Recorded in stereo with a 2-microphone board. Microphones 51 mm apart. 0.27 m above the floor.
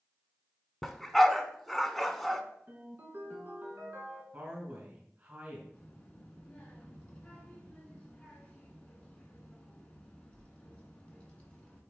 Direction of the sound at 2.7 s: 45° right (ahead or behind).